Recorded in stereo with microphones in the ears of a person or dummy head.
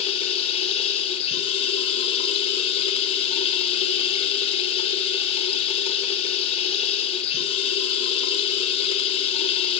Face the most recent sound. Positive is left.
turn(degrees=30)  # may be behind; listen again after turning